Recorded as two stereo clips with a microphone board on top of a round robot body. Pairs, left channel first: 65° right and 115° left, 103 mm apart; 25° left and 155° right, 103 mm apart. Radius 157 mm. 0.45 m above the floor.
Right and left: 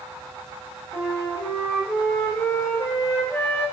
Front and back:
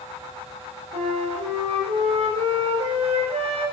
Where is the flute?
130° right, 5 m.